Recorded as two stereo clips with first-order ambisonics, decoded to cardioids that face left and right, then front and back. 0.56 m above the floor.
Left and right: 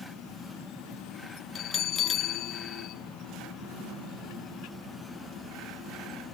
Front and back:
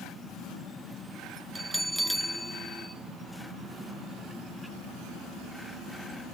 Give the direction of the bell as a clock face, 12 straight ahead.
9 o'clock.